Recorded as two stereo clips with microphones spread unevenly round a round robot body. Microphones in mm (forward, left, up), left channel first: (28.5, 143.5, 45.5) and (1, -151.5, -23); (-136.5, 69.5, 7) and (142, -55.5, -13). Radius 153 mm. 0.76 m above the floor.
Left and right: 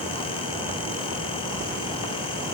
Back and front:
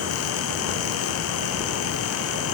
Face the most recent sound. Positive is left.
No sound to turn to.